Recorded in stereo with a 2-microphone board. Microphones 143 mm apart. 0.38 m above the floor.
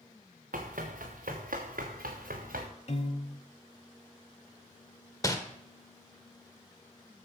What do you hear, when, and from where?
0.5 s running footsteps: 70° right (ahead or behind), 2.5 m; by 2.7 s 85° right, 3.5 m
2.9 s a piano: 50° left (ahead or behind), 1.0 m
5.2 s crumpling: 25° left (ahead or behind), 1.3 m